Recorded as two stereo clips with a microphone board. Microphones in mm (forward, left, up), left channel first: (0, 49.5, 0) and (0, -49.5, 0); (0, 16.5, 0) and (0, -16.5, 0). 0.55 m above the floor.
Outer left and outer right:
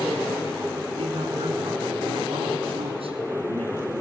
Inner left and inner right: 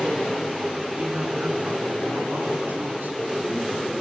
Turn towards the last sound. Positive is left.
turn(degrees=-70)  # may be behind; listen again after turning